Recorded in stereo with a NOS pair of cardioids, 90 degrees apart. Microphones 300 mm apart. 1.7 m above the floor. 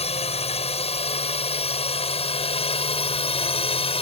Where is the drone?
20° left.